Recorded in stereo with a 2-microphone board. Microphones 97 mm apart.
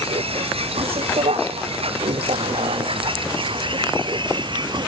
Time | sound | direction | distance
0.0 | a vehicle | 80° right | ?